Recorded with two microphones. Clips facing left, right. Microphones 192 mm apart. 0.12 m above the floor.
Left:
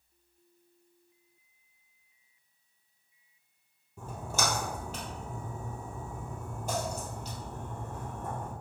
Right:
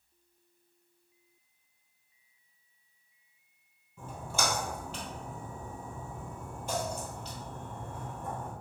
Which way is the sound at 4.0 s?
45° left (ahead or behind).